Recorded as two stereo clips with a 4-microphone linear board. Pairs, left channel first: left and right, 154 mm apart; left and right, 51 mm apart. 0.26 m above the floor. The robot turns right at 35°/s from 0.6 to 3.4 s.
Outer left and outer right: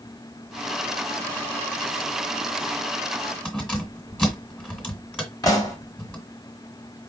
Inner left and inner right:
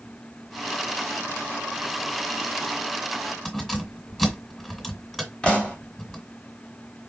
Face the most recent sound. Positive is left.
turn(degrees=20)  # may be behind; listen again after turning